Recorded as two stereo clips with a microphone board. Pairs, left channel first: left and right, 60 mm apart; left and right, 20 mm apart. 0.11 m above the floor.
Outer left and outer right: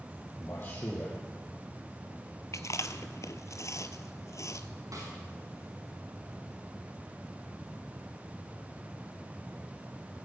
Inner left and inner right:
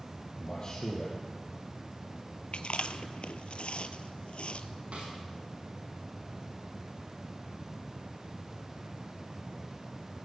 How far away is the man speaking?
About 3 m.